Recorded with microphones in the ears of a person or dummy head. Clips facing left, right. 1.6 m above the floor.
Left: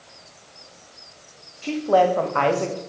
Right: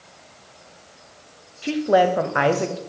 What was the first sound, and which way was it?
A woman speaking, 15° right (ahead or behind).